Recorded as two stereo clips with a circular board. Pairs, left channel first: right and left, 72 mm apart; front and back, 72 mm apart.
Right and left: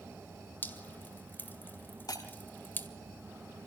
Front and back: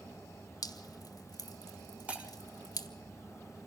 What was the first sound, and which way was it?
Dripping, 30° right.